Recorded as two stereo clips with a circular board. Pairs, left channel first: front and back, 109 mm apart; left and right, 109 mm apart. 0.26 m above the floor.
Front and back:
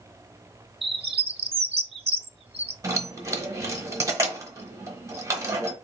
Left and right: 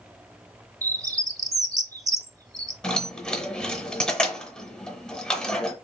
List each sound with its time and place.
0.8 s a bird: 150° right, 0.5 m
2.8 s keys jangling: 165° left, 0.9 m